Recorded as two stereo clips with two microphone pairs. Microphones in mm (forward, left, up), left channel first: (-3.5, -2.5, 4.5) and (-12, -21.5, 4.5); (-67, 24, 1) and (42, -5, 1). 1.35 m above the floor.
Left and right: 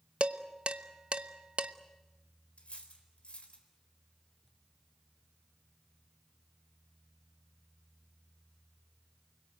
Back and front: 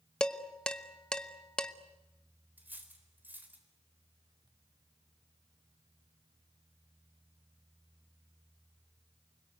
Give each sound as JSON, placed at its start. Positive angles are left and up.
{"t": 0.2, "sound": "dishes clattering", "azimuth_deg": -115, "distance_m": 1.0}
{"t": 2.6, "sound": "cutlery clinking", "azimuth_deg": 60, "distance_m": 4.0}